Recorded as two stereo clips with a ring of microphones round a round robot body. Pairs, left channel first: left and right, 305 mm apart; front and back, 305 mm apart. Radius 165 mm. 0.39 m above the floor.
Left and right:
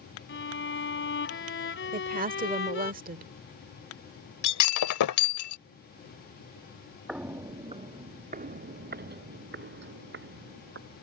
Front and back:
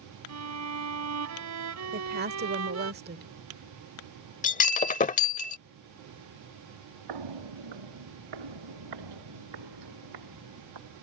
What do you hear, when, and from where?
0.3 s a violin: 145° left
1.9 s a woman speaking: 140° right
4.4 s breaking glass: 65° left
7.1 s footsteps: straight behind; by 11.0 s 145° right